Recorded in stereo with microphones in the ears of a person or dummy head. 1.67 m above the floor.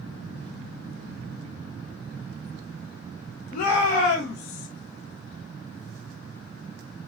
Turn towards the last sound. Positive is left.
turn(degrees=60)  # may be behind; listen again after turning